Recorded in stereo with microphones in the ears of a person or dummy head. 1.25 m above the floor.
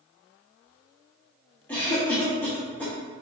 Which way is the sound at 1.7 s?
15° left (ahead or behind).